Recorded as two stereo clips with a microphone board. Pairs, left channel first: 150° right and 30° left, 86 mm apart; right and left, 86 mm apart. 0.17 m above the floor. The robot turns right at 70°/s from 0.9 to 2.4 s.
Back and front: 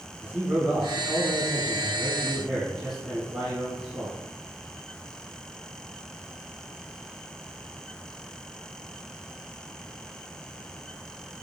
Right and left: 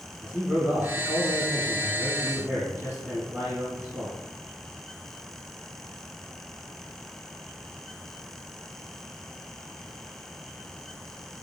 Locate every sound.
0.2 s a man speaking: 15° left, 1.3 m; by 4.2 s 120° left, 1.3 m